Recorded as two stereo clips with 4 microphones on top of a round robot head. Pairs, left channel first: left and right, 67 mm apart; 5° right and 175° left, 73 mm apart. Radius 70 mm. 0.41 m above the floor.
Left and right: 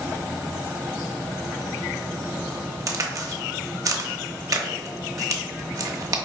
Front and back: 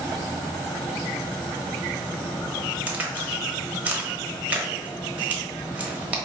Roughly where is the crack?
Behind right.